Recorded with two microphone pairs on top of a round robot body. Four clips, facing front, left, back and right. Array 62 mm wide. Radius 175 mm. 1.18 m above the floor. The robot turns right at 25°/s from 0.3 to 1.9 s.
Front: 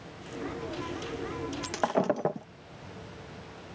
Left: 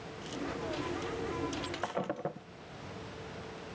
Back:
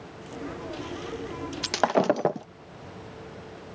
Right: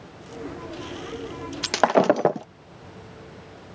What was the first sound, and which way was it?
Breaking glass, 110° right.